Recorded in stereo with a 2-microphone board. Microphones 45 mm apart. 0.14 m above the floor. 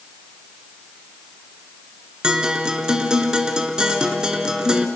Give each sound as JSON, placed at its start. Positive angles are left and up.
{"t": 2.2, "sound": "a guitar", "side_deg": -20, "distance_m": 1.8}